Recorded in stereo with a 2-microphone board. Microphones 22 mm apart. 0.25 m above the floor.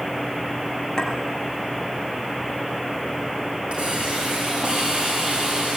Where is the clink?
35° left (ahead or behind), 3.5 m.